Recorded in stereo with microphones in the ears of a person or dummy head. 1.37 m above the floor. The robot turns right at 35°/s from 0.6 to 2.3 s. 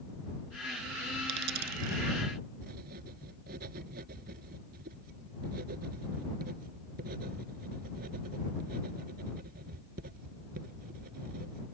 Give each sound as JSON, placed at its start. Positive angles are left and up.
{"t": 1.3, "sound": "a dropped coin", "side_deg": -65}
{"t": 2.6, "sound": "writing", "side_deg": -50}